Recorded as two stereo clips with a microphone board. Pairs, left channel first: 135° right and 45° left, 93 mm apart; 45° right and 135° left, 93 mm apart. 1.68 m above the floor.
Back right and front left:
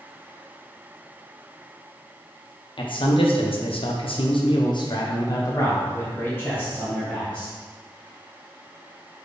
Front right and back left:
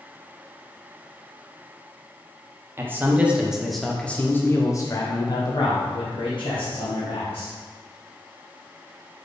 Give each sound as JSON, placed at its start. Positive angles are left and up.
{"t": 2.8, "sound": "a man speaking", "azimuth_deg": -160, "distance_m": 1.2}